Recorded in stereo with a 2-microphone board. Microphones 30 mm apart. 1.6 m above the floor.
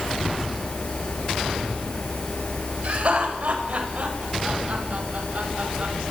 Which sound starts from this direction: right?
Laughter, at 2.8 s.